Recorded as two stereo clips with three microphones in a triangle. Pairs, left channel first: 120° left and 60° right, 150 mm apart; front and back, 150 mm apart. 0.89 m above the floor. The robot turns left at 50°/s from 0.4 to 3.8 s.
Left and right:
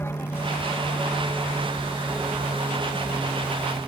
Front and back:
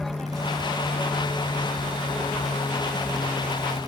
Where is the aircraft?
85° left; by 3.9 s 85° right.